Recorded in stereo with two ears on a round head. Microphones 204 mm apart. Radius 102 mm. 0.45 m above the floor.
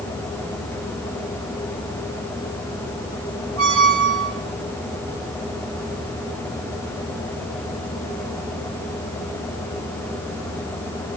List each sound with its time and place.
3.6 s a squeak: 65° right (ahead or behind), 5 m